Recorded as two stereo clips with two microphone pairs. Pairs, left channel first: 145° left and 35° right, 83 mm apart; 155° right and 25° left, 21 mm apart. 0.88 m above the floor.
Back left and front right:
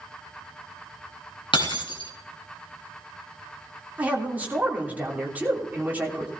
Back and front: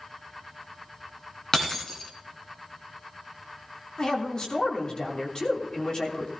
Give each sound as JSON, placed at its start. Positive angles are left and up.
{"t": 1.5, "sound": "breaking glass", "azimuth_deg": 140, "distance_m": 2.5}
{"t": 4.0, "sound": "a man speaking", "azimuth_deg": -105, "distance_m": 3.0}